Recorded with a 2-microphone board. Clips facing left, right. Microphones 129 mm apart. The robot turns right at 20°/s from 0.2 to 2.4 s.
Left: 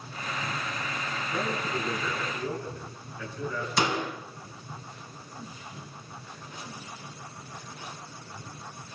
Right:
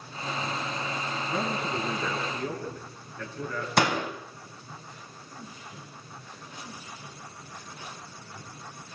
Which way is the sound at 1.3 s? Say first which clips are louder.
Even; 85° right.